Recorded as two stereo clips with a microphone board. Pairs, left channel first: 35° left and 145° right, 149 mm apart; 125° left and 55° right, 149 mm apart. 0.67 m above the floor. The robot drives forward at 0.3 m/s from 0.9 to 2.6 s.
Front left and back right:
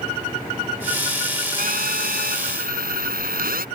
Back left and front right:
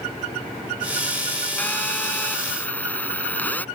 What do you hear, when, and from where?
1.6 s a phone buzzing: 155° right